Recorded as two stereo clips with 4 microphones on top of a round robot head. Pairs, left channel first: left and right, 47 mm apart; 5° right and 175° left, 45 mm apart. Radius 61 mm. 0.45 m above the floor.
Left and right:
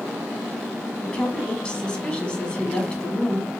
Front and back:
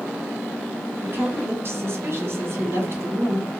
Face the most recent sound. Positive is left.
turn(degrees=155)